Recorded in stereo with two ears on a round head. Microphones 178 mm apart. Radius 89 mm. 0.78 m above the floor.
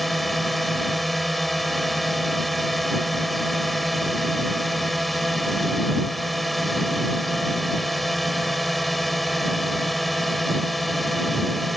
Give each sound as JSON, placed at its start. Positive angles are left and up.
{"t": 0.0, "sound": "a drone", "side_deg": 0}